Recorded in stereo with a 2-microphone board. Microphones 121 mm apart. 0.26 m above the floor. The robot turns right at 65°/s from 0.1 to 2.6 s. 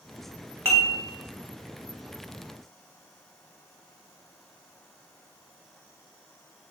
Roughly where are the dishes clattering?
Right.